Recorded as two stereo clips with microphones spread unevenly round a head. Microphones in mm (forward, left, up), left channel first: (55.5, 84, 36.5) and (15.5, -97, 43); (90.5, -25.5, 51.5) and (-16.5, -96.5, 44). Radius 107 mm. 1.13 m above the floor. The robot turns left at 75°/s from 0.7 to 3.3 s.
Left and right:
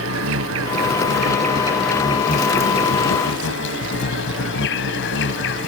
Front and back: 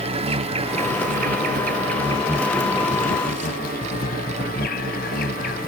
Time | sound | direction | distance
0.0 | an insect | 105° right | ?